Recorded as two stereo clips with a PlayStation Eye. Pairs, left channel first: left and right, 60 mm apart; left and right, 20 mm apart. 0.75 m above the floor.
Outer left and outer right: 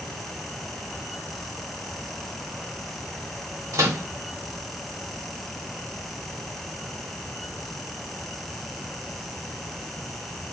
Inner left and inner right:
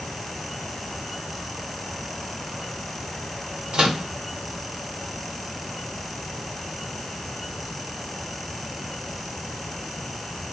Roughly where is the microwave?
Right.